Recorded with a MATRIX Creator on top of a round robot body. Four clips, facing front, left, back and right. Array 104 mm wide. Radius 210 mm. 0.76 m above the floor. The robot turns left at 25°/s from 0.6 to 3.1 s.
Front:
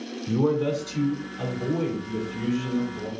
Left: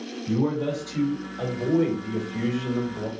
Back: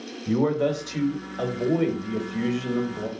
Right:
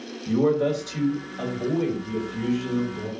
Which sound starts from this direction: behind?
A man speaking, at 0.3 s.